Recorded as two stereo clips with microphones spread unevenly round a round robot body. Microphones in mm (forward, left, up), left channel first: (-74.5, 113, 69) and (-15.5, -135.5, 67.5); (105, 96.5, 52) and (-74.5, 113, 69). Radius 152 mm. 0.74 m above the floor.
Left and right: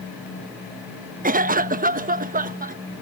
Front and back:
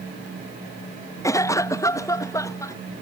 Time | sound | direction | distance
1.2 | a cough | 55° right | ?